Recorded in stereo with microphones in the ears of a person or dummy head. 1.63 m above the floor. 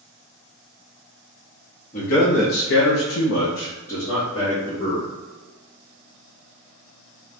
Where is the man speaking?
45° left (ahead or behind), 1.2 m; by 5.1 s 15° left (ahead or behind), 1.7 m.